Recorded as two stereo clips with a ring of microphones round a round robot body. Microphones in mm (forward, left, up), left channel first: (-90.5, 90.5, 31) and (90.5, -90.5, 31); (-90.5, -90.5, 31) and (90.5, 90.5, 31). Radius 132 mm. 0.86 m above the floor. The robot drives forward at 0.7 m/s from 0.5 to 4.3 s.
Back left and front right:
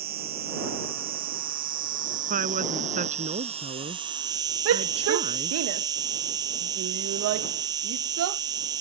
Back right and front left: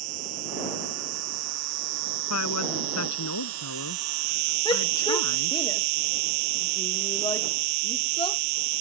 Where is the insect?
10° left; by 8.8 s 30° left.